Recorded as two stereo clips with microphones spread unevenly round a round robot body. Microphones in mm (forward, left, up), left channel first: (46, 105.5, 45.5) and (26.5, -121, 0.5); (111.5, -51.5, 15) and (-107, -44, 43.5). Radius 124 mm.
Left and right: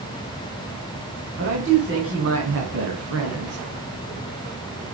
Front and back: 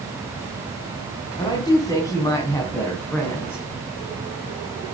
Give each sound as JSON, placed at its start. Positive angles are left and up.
{"t": 1.4, "sound": "a woman speaking", "azimuth_deg": -70, "distance_m": 3.0}